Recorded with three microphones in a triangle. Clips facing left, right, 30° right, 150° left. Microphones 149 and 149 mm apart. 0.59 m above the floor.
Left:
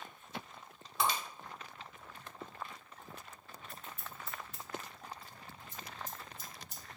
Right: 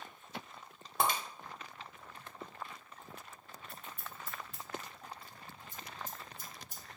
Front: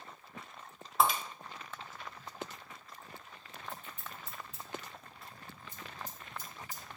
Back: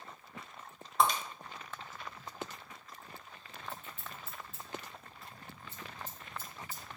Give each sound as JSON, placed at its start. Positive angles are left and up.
{"t": 1.0, "sound": "breaking glass", "azimuth_deg": -120, "distance_m": 0.7}
{"t": 3.7, "sound": "scissors", "azimuth_deg": -105, "distance_m": 1.6}